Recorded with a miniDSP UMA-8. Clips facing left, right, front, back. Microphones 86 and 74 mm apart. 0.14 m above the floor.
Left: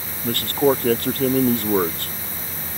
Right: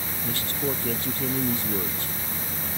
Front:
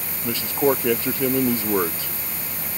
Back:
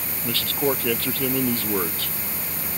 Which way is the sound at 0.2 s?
70° left.